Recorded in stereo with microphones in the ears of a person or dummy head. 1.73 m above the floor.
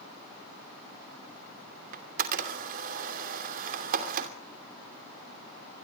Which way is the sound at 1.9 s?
40° right (ahead or behind).